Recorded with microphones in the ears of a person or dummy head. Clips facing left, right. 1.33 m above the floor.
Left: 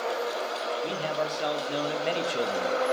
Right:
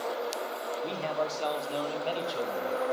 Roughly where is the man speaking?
Centre.